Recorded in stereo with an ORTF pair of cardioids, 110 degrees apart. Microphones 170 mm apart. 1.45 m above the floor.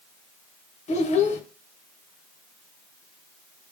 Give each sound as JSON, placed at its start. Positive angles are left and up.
{"t": 0.9, "sound": "a child speaking", "azimuth_deg": 45, "distance_m": 0.8}